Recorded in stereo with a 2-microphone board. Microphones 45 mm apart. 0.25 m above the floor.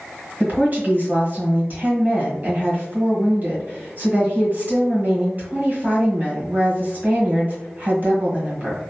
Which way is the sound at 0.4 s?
40° right (ahead or behind).